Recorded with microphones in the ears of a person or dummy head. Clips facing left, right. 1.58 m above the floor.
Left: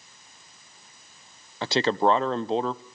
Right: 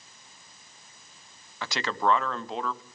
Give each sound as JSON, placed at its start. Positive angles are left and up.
{"t": 1.6, "sound": "a man speaking", "side_deg": 30, "distance_m": 0.7}